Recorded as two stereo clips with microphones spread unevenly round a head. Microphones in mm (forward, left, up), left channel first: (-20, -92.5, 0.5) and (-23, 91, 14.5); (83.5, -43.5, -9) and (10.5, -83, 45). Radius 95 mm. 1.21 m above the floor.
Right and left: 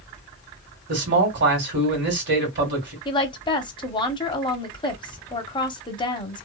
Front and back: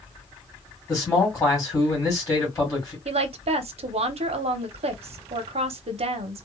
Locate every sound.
0.9 s a man speaking: 60° left, 1.6 m
3.0 s a woman speaking: 140° right, 0.7 m